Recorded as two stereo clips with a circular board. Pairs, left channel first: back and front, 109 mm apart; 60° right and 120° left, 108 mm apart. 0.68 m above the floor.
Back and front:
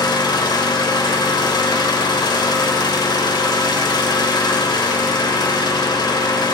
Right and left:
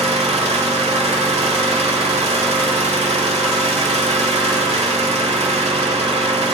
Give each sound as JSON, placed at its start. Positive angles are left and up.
{"t": 0.0, "sound": "an engine running", "azimuth_deg": 130, "distance_m": 1.2}